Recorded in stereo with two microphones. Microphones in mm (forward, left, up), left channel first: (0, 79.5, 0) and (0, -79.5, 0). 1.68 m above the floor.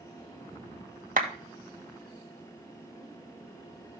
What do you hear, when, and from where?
1.2 s a clap: 60° right (ahead or behind), 2 m